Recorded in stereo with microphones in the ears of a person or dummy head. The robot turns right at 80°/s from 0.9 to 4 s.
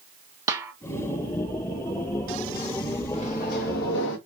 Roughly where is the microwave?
Ahead left.